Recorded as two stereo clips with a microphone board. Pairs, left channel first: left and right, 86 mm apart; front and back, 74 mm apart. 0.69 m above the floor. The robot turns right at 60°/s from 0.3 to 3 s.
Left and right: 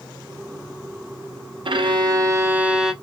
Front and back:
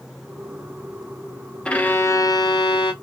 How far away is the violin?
About 0.5 m.